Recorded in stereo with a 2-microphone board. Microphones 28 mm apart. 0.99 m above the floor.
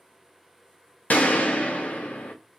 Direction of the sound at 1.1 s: 70° left (ahead or behind).